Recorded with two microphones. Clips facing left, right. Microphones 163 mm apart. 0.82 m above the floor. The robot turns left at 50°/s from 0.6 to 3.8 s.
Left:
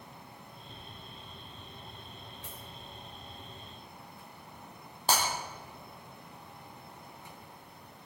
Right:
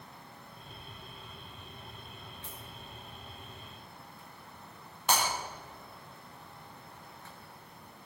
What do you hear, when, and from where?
2.4 s a dropped coin: 75° left (ahead or behind), 7 m; by 2.6 s 85° left, 7 m
5.1 s breaking glass: 30° left (ahead or behind), 4.5 m